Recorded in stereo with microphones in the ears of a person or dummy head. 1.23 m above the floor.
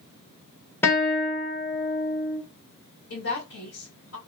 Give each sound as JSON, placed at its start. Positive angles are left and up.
{"t": 0.8, "sound": "a guitar", "side_deg": 10, "distance_m": 0.8}
{"t": 3.1, "sound": "a woman speaking", "side_deg": 70, "distance_m": 1.4}